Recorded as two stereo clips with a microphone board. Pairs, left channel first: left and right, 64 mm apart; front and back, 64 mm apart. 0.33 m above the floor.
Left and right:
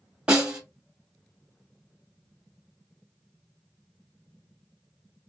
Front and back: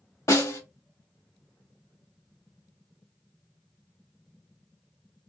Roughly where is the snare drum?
Ahead.